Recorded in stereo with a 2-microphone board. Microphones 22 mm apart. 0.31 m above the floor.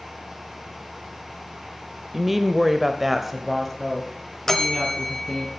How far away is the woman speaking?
About 0.9 m.